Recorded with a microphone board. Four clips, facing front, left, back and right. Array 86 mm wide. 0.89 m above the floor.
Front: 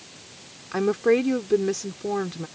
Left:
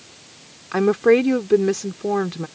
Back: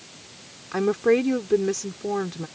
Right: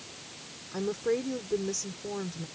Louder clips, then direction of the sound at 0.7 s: Left 14 dB, even; 95° left.